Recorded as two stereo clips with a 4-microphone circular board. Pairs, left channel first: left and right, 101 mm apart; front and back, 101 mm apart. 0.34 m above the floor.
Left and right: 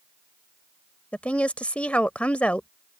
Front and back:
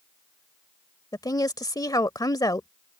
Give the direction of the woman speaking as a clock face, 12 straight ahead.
11 o'clock.